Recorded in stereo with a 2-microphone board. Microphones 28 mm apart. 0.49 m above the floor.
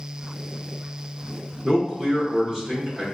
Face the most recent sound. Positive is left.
turn(degrees=-5)  # may be behind; listen again after turning